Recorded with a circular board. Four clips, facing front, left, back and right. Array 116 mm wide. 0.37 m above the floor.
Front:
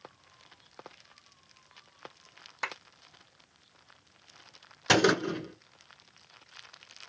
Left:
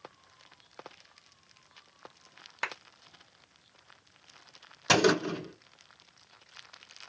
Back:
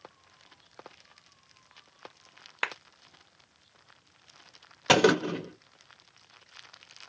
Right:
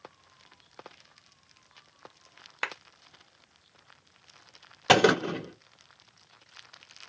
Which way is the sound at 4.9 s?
130° right.